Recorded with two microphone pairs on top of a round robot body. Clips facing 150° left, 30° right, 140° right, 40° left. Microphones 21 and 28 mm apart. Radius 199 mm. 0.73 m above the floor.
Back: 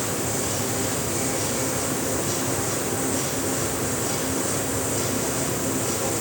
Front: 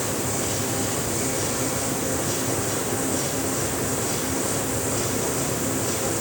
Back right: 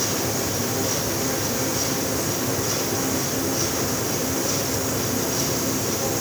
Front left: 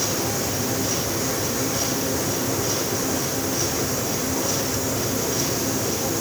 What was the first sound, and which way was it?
Only background noise.